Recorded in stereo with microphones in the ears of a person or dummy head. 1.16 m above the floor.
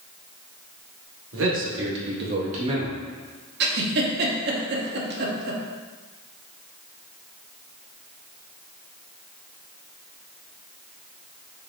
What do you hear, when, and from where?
1.3 s a man speaking: 70° right (ahead or behind), 1.1 m; by 3.0 s 10° right (ahead or behind), 0.6 m
3.6 s a giggle: 55° right (ahead or behind), 0.8 m